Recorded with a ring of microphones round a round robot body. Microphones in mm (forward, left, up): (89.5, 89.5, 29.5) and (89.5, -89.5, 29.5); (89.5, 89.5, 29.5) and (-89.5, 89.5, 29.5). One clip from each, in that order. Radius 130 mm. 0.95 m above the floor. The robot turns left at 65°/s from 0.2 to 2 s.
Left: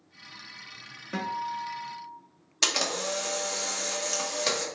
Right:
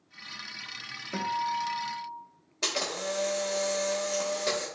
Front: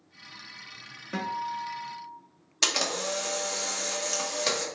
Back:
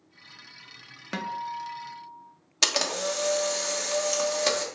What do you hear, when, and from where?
1.1 s a guitar: 165° left, 0.7 m; by 2.2 s 105° left, 0.7 m
2.6 s a camera shutter: 115° left, 1.1 m